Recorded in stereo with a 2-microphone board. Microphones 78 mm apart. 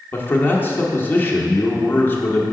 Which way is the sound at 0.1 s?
25° left (ahead or behind).